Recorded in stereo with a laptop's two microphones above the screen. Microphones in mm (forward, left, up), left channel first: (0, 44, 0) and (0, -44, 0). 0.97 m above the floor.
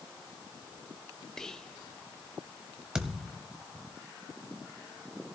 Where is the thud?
5° right (ahead or behind), 1.1 m.